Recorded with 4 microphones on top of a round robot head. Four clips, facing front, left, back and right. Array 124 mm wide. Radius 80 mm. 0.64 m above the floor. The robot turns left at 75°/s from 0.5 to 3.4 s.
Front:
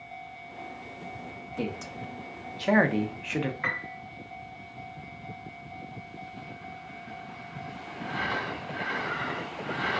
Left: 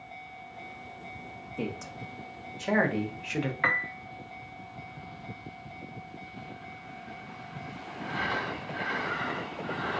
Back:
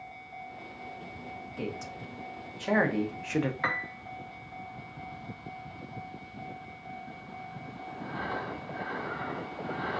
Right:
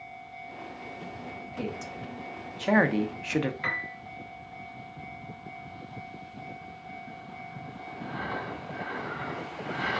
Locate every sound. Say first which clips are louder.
1.6 s a man speaking: even, front 4 dB; 35° left, 0.6 m; by 3.5 s 105° right, 0.6 m
3.6 s a piano: left 4 dB, back 1 dB; 115° left, 0.6 m